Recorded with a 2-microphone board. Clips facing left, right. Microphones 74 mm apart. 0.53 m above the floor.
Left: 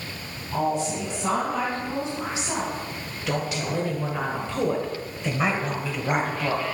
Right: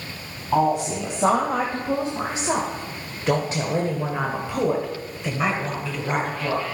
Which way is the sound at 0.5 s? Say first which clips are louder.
Right 5 dB; 75° right (ahead or behind).